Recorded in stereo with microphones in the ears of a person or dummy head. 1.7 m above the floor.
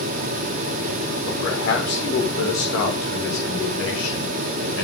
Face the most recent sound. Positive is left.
turn(degrees=85)